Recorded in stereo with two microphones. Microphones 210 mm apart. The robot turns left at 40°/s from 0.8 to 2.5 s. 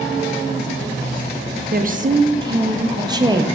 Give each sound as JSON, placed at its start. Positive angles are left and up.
{"t": 1.7, "sound": "a woman speaking", "azimuth_deg": -130, "distance_m": 0.6}